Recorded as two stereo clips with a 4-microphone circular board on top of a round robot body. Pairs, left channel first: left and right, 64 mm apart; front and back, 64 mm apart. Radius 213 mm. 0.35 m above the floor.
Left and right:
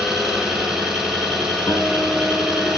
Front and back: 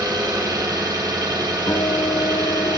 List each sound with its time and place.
0.0 s an engine running: 175° right, 4.5 m
1.7 s a guitar: 40° left, 3 m